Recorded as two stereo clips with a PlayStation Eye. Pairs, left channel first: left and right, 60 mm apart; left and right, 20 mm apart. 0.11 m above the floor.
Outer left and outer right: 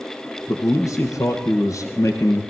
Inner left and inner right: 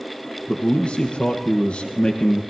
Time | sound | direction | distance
0.5 | a man speaking | 55° left (ahead or behind) | 2.5 m